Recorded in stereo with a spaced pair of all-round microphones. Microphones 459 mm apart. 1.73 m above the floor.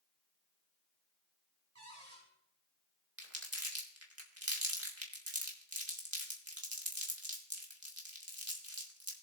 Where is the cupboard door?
35° right (ahead or behind), 6.5 m.